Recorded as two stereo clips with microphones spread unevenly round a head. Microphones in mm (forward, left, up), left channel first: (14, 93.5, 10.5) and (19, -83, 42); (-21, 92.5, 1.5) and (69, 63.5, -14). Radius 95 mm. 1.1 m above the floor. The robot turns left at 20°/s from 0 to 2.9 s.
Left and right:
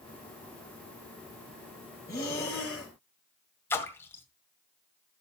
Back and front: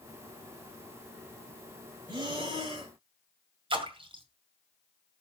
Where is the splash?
10° left, 2 m.